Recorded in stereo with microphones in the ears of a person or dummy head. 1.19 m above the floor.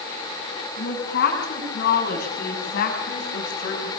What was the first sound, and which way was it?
A woman speaking, 65° left (ahead or behind).